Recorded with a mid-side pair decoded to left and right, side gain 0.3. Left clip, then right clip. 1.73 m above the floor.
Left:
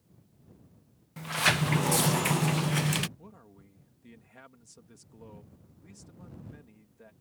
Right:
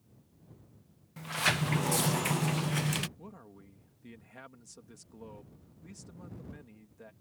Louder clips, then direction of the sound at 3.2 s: Right 2 dB; 25° right.